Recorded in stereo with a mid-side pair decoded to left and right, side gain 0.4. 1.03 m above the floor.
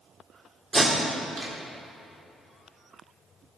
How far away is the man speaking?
No man speaking in this recording.